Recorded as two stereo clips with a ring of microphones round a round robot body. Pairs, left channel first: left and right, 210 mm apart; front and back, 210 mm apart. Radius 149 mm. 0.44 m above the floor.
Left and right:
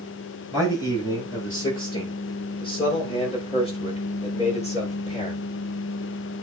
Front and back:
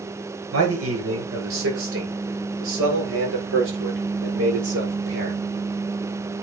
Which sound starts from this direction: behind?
A man speaking, at 0.5 s.